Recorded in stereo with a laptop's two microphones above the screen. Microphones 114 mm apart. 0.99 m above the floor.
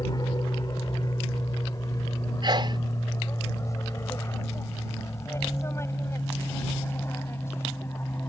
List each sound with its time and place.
0.0 s an aircraft: 35° left (ahead or behind); by 8.3 s 20° left (ahead or behind)
2.4 s a sneeze: 45° right (ahead or behind)